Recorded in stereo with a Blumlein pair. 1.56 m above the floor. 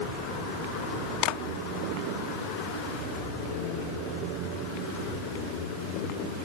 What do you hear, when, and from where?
1.2 s a clap: 40° left